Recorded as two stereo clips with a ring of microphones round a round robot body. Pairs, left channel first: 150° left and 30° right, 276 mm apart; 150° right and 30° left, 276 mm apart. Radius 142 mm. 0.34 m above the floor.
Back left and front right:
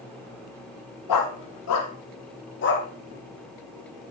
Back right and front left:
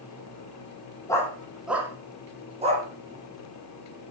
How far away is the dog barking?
About 3 m.